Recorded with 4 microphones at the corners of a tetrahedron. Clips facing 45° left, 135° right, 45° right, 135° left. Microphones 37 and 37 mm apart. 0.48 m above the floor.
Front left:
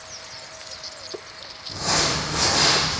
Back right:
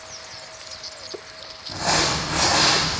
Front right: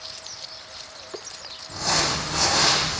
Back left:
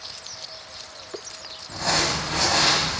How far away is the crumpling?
About 0.5 m.